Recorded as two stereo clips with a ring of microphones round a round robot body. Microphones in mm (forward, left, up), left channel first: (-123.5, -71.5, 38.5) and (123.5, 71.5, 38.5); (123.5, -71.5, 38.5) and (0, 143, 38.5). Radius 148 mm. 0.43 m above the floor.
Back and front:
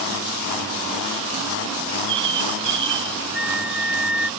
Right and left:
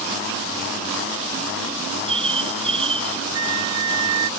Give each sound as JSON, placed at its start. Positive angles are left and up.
{"t": 1.8, "sound": "a bird", "azimuth_deg": 55}
{"t": 3.3, "sound": "a flute", "azimuth_deg": 115}